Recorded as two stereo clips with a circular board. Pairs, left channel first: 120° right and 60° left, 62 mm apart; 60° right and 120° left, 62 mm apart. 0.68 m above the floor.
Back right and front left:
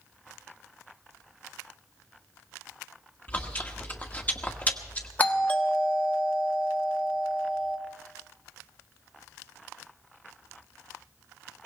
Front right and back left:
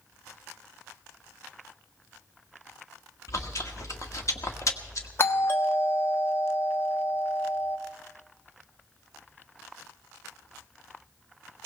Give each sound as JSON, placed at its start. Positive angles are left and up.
{"t": 3.3, "sound": "chewing", "azimuth_deg": -65, "distance_m": 1.3}
{"t": 5.2, "sound": "a doorbell", "azimuth_deg": -75, "distance_m": 1.2}